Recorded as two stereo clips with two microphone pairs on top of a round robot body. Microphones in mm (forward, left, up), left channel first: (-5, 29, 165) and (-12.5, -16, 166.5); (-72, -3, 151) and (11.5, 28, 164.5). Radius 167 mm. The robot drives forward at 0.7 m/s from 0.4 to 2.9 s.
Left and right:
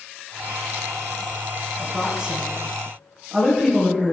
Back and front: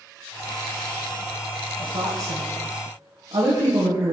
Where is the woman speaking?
15° right, 3.5 m.